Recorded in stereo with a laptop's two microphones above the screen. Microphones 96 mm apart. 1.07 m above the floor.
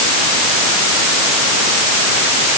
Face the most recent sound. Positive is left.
No sound to turn to.